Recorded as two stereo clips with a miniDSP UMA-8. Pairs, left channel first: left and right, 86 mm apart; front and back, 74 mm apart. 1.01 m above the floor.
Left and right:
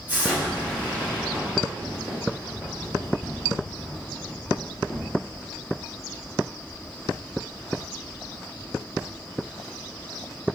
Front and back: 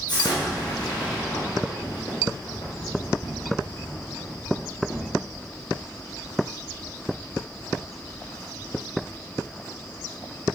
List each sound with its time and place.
0.1 s an explosion: 20° right, 1.1 m